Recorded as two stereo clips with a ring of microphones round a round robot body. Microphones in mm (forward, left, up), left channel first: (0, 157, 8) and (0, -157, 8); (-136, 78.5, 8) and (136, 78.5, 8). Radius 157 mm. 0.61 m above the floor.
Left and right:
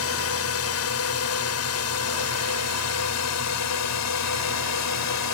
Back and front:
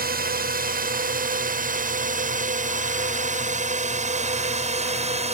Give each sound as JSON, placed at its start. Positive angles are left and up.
{"t": 0.0, "sound": "a drone", "azimuth_deg": 50}